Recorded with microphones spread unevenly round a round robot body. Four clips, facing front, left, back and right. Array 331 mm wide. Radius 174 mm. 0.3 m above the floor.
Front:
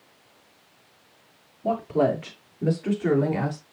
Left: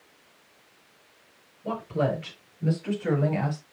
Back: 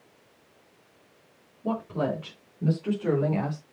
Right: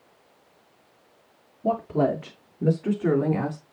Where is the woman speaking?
80° right, 7 m; by 3.6 s 70° right, 4.5 m.